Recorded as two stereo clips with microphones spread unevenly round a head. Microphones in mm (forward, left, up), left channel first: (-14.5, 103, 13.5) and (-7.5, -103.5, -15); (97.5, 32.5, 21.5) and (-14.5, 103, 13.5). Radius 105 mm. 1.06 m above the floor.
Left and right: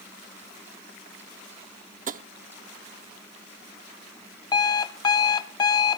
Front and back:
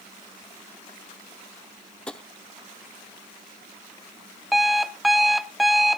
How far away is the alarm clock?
About 0.6 m.